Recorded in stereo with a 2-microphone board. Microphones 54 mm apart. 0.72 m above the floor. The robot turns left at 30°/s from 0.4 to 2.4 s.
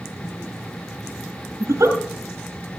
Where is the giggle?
65° right (ahead or behind), 1.8 m; by 2.0 s 75° right (ahead or behind), 1.8 m.